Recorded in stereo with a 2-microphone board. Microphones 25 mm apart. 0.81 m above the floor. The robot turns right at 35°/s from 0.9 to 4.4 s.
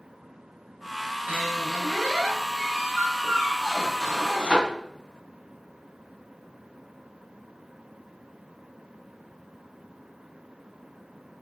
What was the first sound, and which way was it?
A squeak, 90° right.